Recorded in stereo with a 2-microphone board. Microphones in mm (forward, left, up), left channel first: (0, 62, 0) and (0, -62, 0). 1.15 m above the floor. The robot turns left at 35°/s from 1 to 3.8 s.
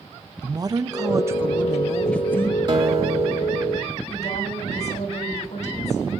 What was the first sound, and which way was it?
A woman speaking, 150° right.